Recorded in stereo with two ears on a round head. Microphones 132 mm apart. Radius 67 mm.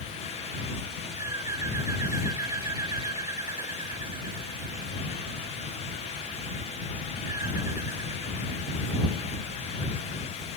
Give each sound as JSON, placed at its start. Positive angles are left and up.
{"t": 1.2, "sound": "a bird", "side_deg": -25}